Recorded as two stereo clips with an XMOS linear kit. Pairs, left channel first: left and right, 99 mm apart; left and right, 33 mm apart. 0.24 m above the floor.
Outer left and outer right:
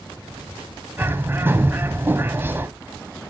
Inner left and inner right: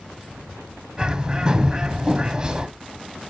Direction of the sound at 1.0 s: 20° right (ahead or behind).